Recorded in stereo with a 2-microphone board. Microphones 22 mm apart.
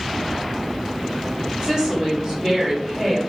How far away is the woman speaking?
About 1.9 m.